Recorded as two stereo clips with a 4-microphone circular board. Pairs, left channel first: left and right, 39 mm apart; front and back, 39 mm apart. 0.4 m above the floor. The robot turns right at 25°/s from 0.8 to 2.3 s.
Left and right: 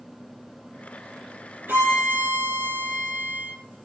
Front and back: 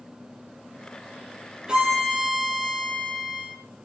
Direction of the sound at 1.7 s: 110° right.